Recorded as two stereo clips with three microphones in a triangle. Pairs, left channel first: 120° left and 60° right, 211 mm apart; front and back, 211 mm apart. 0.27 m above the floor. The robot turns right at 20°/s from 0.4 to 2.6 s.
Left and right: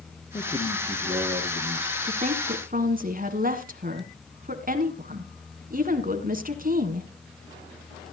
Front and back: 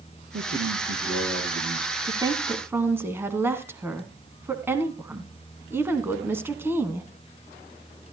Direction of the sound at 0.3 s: 170° right.